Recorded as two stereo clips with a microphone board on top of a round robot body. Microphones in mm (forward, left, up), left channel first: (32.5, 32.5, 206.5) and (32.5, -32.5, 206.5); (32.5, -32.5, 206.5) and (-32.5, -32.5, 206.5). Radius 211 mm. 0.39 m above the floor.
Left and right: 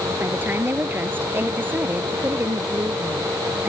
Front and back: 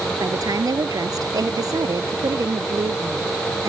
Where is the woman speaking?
150° right.